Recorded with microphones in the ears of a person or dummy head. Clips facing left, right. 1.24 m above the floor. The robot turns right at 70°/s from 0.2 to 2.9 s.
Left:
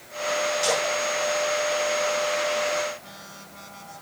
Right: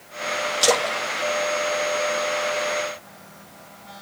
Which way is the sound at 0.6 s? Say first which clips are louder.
Right 3 dB; 85° right.